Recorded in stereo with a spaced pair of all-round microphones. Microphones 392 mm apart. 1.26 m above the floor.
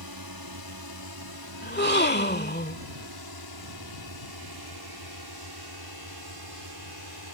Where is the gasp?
25° left (ahead or behind).